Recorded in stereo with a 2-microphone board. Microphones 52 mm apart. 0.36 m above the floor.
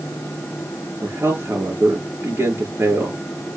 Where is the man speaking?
50° right (ahead or behind), 6 m.